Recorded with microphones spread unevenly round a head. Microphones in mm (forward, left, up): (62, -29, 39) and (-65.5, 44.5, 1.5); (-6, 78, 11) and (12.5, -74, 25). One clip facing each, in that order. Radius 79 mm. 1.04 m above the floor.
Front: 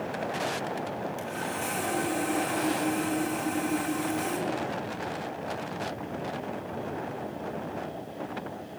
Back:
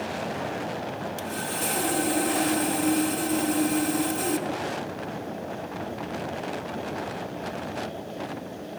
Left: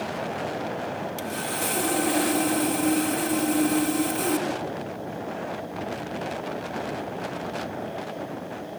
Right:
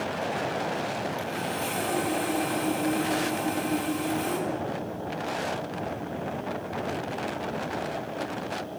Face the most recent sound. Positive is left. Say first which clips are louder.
# back 2 dB, left 1 dB
turn(degrees=115)